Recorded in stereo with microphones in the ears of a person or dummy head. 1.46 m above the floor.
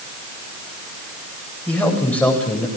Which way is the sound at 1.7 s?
5° left (ahead or behind).